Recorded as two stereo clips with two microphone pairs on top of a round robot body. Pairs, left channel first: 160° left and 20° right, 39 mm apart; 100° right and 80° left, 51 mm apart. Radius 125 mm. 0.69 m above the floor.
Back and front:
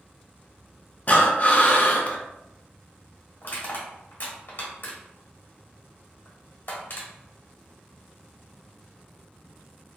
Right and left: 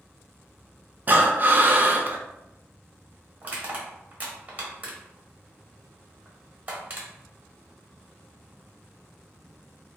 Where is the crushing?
140° left, 1.1 m.